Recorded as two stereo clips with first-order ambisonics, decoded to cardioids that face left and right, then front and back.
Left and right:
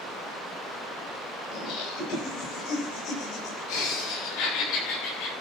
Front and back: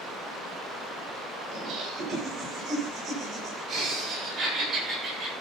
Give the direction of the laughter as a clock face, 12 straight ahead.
8 o'clock.